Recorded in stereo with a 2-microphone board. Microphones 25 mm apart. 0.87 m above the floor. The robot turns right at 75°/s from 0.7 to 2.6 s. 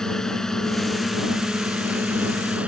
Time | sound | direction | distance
0.0 | a drone | 160° left | ?